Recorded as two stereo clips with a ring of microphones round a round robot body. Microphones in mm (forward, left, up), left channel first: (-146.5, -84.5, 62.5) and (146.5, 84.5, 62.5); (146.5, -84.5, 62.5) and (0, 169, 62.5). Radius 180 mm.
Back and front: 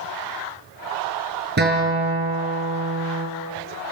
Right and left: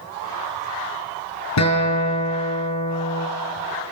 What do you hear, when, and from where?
1.6 s a guitar: 30° right, 5 m